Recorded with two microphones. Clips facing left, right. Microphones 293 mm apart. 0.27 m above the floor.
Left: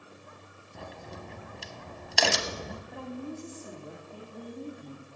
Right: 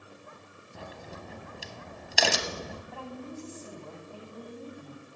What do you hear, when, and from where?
0.8 s a crack: centre (ahead or behind), 0.7 m
2.9 s a woman speaking: 20° left (ahead or behind), 1.7 m